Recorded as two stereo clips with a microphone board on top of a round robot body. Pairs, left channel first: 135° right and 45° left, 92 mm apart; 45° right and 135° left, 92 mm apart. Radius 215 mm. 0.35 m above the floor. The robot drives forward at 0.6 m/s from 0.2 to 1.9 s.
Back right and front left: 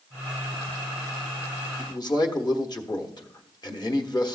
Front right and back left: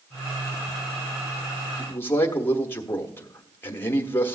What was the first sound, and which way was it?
A man speaking, 105° right.